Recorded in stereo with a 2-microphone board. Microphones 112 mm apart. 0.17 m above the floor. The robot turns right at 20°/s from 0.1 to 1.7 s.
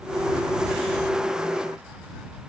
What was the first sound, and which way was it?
Only background noise.